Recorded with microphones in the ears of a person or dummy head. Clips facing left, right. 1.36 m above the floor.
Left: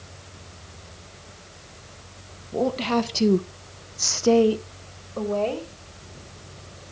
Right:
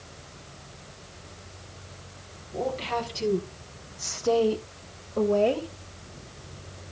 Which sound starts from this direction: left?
A woman speaking, at 2.5 s.